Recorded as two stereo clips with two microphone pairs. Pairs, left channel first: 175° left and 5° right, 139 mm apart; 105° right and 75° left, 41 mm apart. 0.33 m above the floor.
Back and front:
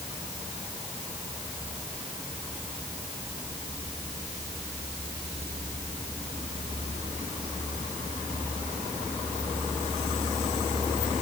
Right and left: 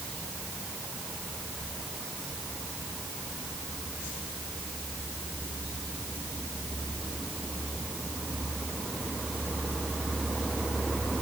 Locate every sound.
Only background noise.